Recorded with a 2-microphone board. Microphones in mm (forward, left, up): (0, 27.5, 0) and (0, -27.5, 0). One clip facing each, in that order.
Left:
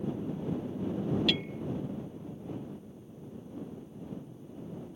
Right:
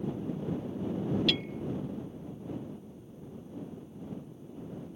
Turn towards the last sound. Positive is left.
turn(degrees=5)  # may be behind; listen again after turning